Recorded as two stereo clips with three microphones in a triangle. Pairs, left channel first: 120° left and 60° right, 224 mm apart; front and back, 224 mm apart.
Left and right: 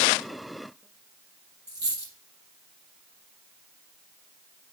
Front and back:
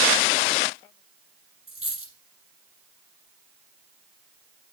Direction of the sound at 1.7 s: 160° right.